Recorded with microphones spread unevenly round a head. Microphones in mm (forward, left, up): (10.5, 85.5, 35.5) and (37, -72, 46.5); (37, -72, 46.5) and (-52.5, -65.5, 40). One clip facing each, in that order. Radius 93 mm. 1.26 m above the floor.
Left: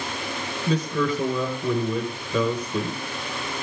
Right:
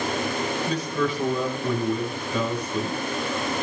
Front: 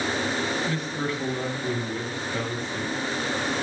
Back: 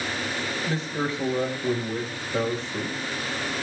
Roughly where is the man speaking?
Left.